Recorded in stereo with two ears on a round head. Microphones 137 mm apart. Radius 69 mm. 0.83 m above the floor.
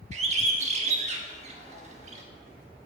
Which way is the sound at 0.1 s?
45° right (ahead or behind).